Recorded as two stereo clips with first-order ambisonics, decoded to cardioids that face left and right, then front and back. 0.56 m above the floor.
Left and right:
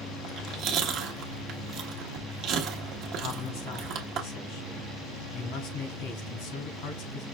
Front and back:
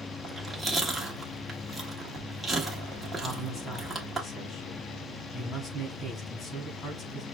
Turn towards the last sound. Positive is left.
turn(degrees=75)